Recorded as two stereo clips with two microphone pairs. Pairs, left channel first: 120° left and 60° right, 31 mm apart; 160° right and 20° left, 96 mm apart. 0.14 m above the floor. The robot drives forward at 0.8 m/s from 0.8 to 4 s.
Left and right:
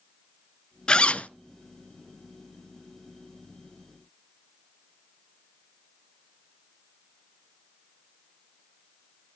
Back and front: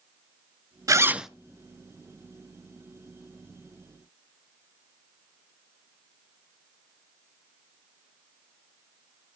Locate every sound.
0.9 s a zipper: 65° left, 0.5 m; by 1.3 s 110° left, 0.5 m